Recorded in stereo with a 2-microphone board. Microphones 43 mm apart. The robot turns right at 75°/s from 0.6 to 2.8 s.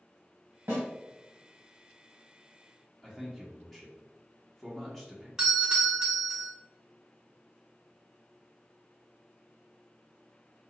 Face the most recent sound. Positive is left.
turn(degrees=-20)  # may be behind; listen again after turning